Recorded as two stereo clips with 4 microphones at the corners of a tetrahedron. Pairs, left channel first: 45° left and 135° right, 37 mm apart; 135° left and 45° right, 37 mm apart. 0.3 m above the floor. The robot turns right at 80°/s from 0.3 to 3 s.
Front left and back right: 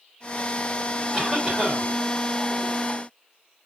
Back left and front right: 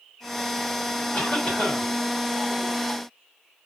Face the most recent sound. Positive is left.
turn(degrees=-85)